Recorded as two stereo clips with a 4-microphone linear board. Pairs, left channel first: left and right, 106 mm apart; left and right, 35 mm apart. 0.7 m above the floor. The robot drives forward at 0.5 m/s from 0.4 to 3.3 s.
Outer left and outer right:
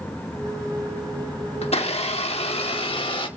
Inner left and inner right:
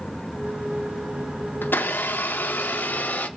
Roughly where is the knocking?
No knocking in this recording.